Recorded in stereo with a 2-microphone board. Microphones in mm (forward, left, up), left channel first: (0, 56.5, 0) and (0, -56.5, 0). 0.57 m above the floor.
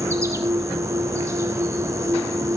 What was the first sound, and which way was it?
An insect, 25° right (ahead or behind).